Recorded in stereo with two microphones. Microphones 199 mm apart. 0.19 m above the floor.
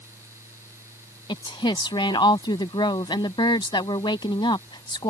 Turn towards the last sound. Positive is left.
turn(degrees=20)  # may be behind; listen again after turning